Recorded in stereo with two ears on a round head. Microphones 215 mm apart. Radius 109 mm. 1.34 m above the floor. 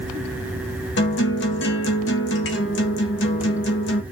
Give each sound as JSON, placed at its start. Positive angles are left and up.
{"t": 1.0, "sound": "a guitar", "side_deg": 50, "distance_m": 1.1}